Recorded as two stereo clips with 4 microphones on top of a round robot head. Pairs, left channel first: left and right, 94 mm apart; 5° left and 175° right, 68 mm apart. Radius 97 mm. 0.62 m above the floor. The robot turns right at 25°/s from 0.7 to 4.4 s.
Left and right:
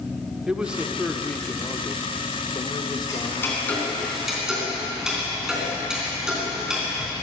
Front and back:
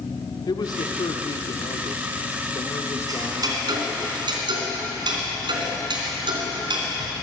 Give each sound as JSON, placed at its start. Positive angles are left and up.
{"t": 0.5, "sound": "a man speaking", "azimuth_deg": -10, "distance_m": 1.6}
{"t": 3.1, "sound": "ticking", "azimuth_deg": 150, "distance_m": 3.0}